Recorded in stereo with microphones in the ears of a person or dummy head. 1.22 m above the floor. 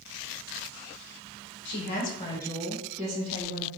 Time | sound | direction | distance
1.6 | a woman speaking | 55° left (ahead or behind) | 1.1 m